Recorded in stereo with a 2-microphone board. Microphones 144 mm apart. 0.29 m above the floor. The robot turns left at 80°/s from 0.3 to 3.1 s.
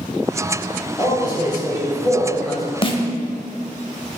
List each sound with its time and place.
1.0 s a man speaking: 130° left, 1.7 m; by 2.7 s 5° right, 1.7 m
2.8 s a snare drum: 40° left (ahead or behind), 0.6 m; by 3.0 s 35° left (ahead or behind), 0.6 m